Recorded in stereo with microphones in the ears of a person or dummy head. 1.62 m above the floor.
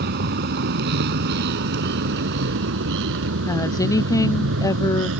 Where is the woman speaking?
30° left (ahead or behind).